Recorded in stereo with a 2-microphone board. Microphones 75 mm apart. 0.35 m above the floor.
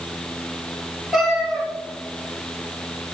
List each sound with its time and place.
1.1 s a cat meowing: centre (ahead or behind), 3 m